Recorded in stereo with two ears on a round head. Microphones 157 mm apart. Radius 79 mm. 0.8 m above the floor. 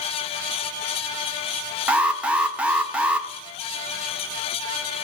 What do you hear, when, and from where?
1.9 s an alarm: 5° right (ahead or behind), 0.6 m